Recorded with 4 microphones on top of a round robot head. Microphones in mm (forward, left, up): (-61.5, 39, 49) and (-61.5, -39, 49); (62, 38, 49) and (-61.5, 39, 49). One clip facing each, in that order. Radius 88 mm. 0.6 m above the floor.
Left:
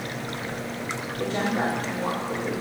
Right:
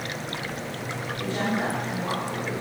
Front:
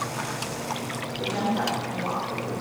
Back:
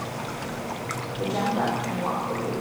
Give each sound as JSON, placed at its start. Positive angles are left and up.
{"t": 1.2, "sound": "a woman speaking", "azimuth_deg": 130, "distance_m": 2.0}